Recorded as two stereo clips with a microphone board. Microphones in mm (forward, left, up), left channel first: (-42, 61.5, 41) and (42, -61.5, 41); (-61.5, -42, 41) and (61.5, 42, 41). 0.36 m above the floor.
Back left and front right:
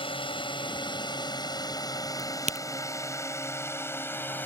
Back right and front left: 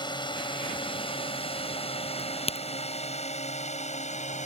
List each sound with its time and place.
0.0 s a drone: 165° left; by 4.5 s 160° right
2.2 s a crack: 95° right